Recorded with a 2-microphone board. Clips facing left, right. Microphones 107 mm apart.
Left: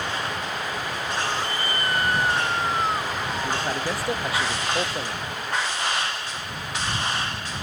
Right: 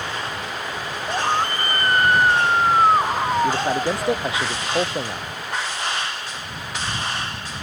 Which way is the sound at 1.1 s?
55° right (ahead or behind).